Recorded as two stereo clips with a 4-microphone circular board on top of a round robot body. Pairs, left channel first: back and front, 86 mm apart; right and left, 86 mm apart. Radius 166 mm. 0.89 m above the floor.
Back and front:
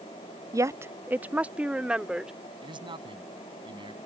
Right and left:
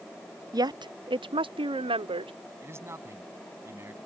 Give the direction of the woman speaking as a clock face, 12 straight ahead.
10 o'clock.